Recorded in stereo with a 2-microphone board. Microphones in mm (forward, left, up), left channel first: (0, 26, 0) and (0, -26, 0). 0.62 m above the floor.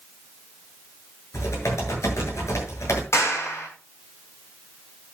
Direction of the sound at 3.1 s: 70° left (ahead or behind).